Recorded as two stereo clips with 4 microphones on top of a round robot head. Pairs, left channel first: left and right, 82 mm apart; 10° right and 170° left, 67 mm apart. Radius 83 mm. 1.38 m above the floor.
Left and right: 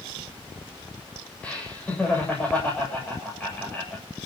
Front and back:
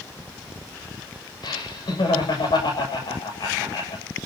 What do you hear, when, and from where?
1.4 s laughter: 10° left, 7.5 m